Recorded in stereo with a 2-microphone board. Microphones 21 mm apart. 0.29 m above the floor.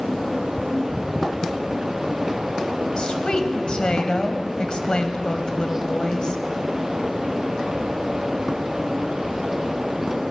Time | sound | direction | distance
3.0 | a woman speaking | 45° left (ahead or behind) | 1.4 m